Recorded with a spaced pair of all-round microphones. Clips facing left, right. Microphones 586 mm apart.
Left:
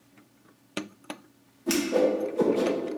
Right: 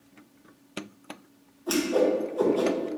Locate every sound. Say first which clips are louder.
1.7 s a whoosh: even; 50° left (ahead or behind), 0.7 m